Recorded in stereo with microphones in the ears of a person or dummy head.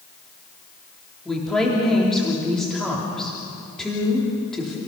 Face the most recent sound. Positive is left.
turn(degrees=5)  # may be behind; listen again after turning